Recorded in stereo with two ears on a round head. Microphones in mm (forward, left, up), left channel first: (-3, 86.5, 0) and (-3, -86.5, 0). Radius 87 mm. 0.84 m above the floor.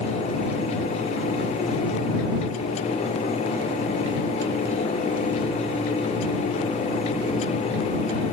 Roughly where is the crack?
I don't hear a crack.